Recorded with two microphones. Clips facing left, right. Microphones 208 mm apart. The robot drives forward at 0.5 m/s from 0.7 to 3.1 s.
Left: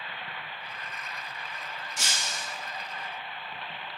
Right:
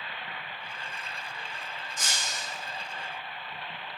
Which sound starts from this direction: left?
Breaking glass, at 2.0 s.